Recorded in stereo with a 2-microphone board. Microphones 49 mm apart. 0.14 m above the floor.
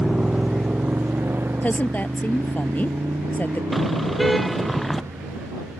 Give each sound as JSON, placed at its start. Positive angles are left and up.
{"t": 0.0, "sound": "a motorcycle", "side_deg": -5}
{"t": 1.6, "sound": "a woman speaking", "side_deg": 35}
{"t": 3.7, "sound": "a car horn", "side_deg": 5}